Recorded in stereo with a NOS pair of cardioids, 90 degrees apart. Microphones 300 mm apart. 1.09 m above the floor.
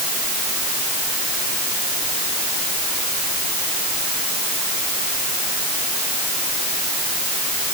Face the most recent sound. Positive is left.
No sound to turn to.